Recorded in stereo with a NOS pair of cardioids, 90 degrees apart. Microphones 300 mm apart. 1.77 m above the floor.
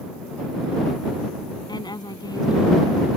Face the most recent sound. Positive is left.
turn(degrees=10)